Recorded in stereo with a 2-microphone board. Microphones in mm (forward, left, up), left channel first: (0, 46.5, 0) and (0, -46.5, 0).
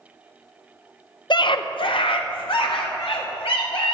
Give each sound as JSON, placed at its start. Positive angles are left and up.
{"t": 1.3, "sound": "a scream", "side_deg": 55, "distance_m": 0.5}